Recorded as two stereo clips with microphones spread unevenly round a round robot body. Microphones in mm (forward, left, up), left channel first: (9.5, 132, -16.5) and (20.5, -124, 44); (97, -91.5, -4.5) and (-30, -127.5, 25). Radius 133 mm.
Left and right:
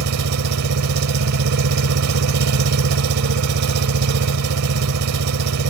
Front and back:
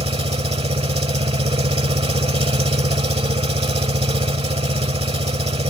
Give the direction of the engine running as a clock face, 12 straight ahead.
4 o'clock.